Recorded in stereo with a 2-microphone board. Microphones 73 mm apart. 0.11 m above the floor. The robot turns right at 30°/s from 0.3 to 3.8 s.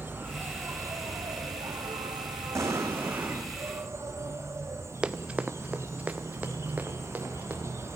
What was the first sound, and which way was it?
An insect, 145° right.